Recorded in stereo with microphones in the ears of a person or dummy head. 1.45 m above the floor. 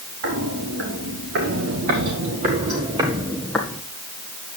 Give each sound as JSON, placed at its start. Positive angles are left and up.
{"t": 0.2, "sound": "footsteps", "side_deg": -70, "distance_m": 4.0}